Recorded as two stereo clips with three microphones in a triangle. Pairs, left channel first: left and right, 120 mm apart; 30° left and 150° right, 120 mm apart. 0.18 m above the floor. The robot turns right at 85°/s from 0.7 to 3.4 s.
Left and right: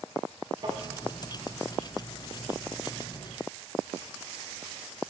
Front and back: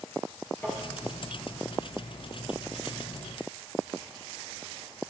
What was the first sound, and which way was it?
Tapping, 40° right.